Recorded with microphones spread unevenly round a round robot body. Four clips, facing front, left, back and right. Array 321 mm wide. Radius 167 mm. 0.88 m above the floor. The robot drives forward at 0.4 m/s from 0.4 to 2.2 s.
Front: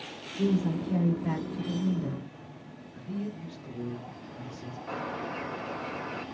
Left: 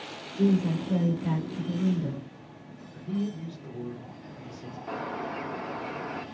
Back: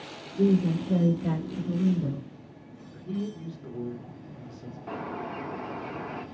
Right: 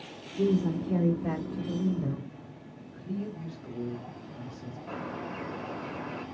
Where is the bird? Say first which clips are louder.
Left 4 dB, even; 145° left, 1.3 m.